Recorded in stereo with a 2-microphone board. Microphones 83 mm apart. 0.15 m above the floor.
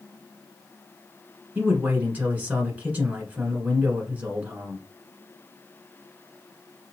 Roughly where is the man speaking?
Centre.